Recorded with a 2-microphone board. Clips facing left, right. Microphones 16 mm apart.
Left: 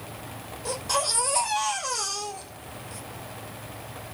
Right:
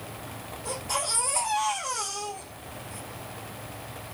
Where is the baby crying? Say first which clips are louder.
Left 4 dB; 20° left (ahead or behind), 3.5 m.